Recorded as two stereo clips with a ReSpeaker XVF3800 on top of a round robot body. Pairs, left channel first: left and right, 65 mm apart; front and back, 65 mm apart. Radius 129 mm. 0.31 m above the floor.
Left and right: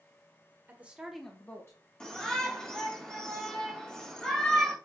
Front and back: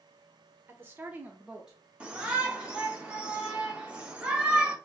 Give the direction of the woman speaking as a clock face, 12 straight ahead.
4 o'clock.